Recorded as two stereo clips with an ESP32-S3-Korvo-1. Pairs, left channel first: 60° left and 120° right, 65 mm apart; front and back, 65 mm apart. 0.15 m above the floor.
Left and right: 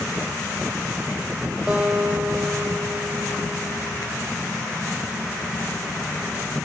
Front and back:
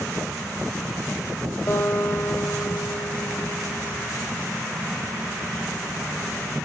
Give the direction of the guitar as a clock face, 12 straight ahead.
2 o'clock.